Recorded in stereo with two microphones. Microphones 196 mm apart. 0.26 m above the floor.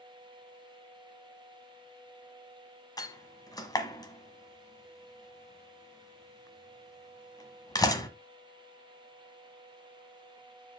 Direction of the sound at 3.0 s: 20° left (ahead or behind).